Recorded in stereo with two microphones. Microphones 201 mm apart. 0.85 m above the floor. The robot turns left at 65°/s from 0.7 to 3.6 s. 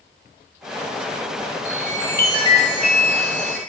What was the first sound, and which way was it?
A chime, 160° right.